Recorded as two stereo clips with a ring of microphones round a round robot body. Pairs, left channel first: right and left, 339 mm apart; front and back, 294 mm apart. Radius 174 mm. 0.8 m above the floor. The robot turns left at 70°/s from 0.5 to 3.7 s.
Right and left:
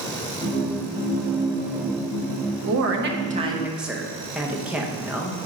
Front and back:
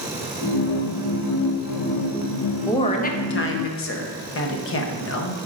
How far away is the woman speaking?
About 0.8 m.